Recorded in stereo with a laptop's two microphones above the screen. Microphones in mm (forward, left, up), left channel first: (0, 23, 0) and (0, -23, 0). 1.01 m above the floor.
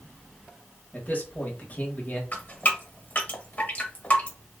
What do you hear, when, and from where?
0.9 s a man speaking: 35° left (ahead or behind), 1.5 m
2.3 s dripping: 35° left (ahead or behind), 1.5 m